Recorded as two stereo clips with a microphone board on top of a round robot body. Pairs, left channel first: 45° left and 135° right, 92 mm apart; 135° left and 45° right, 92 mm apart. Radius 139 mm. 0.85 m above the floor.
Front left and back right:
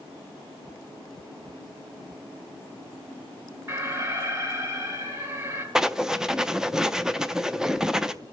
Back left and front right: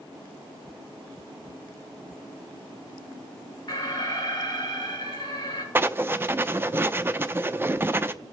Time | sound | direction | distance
3.7 | an alarm | 175° left | 3.5 m
5.8 | writing | 60° right | 0.6 m